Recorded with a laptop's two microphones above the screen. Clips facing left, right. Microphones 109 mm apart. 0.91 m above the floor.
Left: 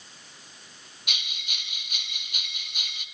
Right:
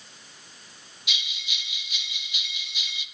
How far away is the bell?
About 0.6 m.